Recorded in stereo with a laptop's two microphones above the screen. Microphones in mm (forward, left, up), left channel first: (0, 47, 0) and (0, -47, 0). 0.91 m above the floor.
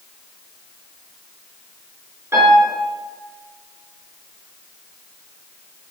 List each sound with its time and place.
2.3 s a piano: 30° right (ahead or behind), 4 m